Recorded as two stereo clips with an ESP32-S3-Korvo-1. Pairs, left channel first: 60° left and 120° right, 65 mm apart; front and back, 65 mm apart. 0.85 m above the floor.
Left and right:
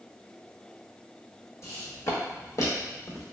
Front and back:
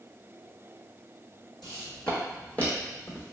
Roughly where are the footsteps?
Left.